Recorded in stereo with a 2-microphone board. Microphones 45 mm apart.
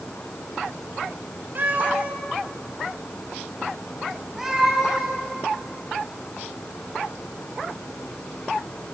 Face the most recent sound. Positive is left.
turn(degrees=-5)  # may be behind; listen again after turning